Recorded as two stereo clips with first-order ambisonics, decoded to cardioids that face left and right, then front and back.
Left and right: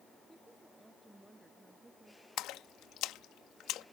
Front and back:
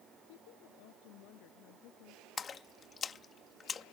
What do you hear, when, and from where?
0.3 s a woman speaking: 10° right
2.4 s a splash: 60° left